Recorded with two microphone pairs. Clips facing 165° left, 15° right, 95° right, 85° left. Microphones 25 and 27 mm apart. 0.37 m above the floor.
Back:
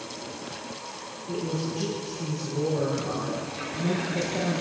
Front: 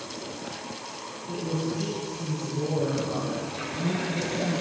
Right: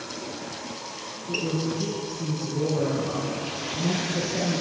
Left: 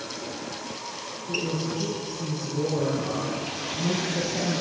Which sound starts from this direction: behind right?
A woman speaking, at 1.3 s.